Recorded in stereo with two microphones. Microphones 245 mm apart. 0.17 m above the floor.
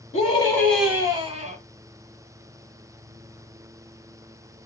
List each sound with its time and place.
0.1 s a scream: 25° left (ahead or behind), 1.3 m; by 1.6 s 30° right (ahead or behind), 1.4 m